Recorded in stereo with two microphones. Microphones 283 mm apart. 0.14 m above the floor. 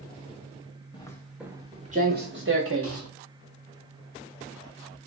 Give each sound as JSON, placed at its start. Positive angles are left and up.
{"t": 0.9, "sound": "footsteps", "side_deg": 15, "distance_m": 0.8}